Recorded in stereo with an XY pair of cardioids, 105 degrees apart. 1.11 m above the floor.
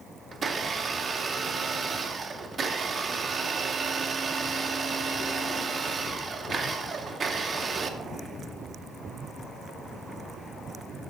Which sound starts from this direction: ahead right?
A blender, at 0.3 s.